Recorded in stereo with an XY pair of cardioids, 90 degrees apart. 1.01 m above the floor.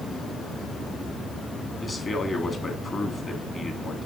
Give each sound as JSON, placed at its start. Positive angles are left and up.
{"t": 1.8, "sound": "a man speaking", "azimuth_deg": 35, "distance_m": 2.5}